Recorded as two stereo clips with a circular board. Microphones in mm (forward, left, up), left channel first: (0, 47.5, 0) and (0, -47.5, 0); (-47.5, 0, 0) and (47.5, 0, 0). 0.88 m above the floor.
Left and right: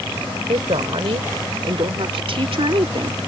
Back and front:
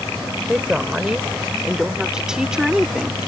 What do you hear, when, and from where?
0.5 s a woman speaking: 80° right; by 3.2 s 85° right